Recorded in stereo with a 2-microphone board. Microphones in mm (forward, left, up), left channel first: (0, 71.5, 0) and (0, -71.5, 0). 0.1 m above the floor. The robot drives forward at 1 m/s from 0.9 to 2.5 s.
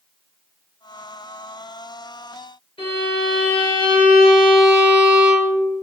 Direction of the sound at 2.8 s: 40° left (ahead or behind).